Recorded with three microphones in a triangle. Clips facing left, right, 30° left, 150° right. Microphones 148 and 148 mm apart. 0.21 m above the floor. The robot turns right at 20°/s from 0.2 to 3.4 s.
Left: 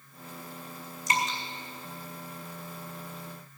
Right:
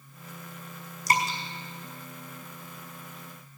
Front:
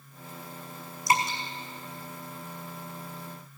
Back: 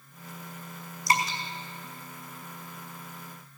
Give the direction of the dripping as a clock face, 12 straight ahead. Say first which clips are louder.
Right 3 dB, front 1 dB; 1 o'clock.